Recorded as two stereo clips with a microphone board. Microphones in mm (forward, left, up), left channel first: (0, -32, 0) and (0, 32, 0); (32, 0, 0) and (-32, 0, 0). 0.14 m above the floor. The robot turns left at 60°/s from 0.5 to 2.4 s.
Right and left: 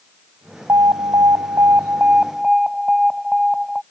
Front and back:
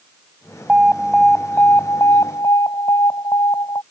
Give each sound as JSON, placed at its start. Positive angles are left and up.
{"t": 0.7, "sound": "an alarm", "azimuth_deg": 110}